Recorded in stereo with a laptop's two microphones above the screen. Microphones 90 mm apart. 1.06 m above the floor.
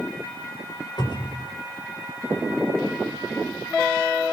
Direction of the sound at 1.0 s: 55° left (ahead or behind).